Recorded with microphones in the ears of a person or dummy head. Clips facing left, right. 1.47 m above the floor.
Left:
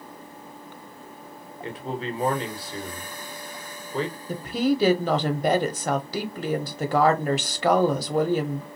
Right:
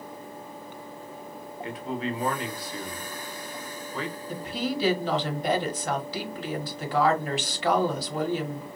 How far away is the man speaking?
About 1.2 m.